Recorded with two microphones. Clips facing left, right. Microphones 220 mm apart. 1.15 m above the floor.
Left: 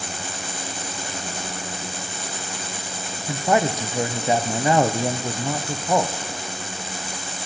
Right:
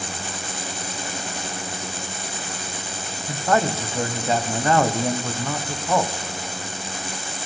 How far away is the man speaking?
About 0.7 m.